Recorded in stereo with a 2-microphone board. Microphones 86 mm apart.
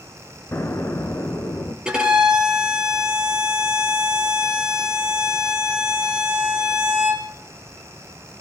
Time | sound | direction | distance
0.5 | an explosion | 30° left (ahead or behind) | 1.1 m
1.9 | a violin | 10° right (ahead or behind) | 3 m